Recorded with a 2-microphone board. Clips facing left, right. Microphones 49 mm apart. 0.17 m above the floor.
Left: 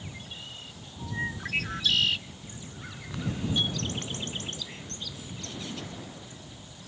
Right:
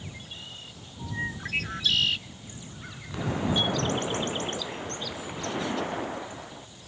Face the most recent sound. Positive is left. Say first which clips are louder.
# right 3 dB
turn(degrees=-50)  # may be behind; listen again after turning